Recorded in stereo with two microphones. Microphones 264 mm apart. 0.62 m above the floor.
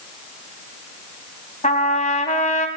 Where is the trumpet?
25° left (ahead or behind), 2.5 m.